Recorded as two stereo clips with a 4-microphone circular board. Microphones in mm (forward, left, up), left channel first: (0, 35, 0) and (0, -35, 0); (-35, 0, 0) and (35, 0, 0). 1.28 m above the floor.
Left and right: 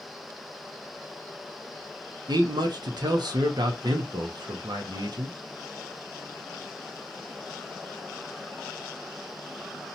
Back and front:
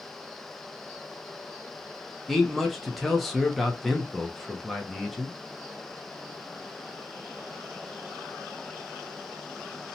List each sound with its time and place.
2.3 s a man speaking: 95° right, 0.6 m